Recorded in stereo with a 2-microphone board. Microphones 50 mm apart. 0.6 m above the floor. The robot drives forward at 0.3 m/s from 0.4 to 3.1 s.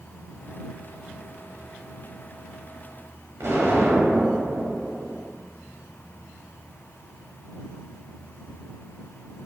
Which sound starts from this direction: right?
An explosion, at 3.4 s.